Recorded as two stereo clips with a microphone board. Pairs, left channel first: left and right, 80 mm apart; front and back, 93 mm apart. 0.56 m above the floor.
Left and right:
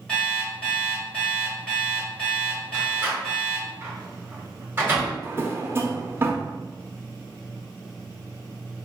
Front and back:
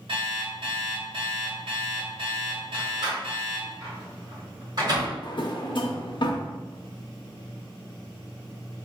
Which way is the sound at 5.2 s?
30° right.